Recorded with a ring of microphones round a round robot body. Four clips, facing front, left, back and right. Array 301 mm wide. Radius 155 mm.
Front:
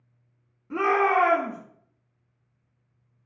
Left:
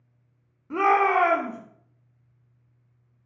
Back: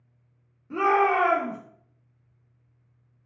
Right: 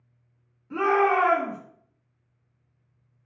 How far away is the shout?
About 1.0 m.